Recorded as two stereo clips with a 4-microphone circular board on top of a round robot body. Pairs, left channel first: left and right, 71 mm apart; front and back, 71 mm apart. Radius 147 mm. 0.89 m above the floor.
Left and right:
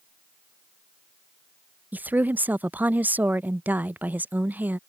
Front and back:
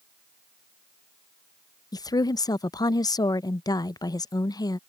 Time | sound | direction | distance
1.9 | a woman speaking | 25° right | ?